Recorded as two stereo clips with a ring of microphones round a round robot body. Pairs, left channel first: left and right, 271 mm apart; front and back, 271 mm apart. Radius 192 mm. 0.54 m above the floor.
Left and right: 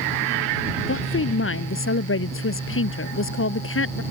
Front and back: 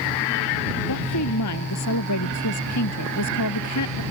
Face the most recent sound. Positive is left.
turn(degrees=50)